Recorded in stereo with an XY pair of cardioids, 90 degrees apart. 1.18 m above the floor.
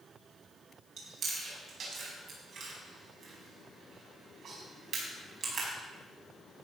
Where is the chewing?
65° right, 5.5 m.